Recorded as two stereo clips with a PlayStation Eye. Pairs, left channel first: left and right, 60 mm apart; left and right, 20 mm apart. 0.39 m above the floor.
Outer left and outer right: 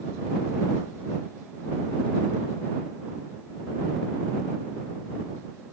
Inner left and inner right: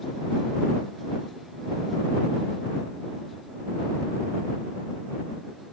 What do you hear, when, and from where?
Only background noise.